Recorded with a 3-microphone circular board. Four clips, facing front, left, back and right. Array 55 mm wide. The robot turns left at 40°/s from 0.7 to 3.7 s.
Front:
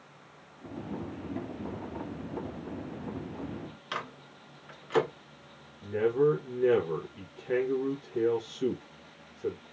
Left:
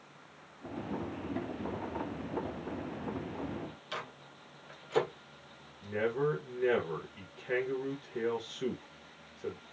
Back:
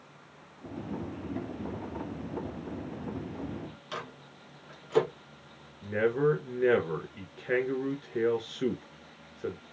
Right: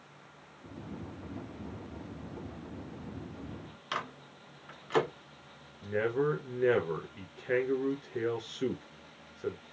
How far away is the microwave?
About 1.6 m.